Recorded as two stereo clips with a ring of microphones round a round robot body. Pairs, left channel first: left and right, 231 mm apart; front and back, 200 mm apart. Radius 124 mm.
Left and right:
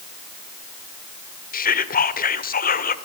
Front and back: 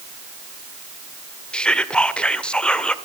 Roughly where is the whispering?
Left.